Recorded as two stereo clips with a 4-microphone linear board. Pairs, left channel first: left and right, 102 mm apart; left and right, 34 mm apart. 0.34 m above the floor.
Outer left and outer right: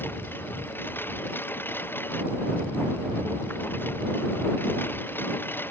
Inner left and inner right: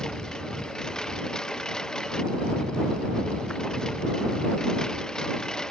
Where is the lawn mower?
20° left (ahead or behind).